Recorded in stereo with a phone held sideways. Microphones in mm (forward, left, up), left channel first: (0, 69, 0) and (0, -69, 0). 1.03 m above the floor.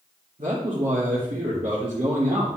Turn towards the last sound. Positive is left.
turn(degrees=-75)  # may be behind; listen again after turning